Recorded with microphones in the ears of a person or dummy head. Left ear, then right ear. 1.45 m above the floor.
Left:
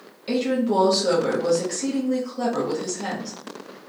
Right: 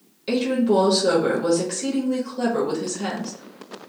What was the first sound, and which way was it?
A woman speaking, 10° right (ahead or behind).